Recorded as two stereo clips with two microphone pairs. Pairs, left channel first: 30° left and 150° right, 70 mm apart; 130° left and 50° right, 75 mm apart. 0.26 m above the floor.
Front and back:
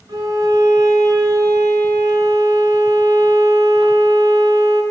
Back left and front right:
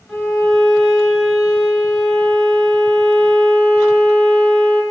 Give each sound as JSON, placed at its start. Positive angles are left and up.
{"t": 0.1, "sound": "a violin", "azimuth_deg": -135, "distance_m": 2.0}